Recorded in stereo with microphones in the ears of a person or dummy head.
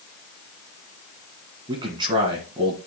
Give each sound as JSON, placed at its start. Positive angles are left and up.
{"t": 1.7, "sound": "a man speaking", "side_deg": -25, "distance_m": 2.0}